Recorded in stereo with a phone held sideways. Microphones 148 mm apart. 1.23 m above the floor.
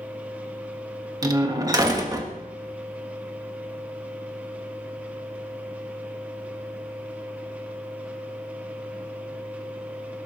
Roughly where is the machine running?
Centre.